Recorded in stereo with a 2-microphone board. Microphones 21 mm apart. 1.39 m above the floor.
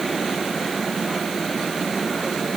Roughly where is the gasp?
No gasp in this recording.